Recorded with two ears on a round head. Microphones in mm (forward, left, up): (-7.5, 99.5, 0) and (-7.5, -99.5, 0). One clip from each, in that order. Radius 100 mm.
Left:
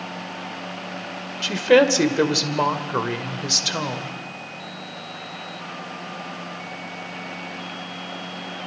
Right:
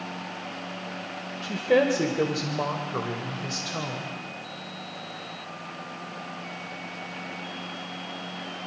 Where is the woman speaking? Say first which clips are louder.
Left 6 dB; 60° left (ahead or behind), 2 m.